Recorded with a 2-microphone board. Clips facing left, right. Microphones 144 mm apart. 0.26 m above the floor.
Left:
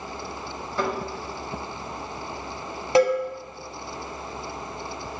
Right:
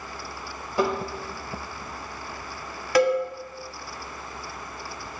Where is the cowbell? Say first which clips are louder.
Left 1 dB; 25° left (ahead or behind), 0.9 m.